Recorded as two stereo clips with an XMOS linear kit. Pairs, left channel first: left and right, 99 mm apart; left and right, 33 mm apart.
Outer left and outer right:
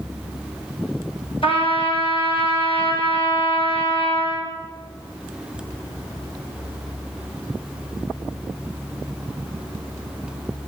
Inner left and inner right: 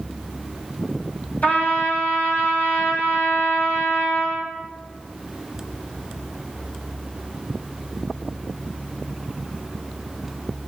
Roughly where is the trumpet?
Left.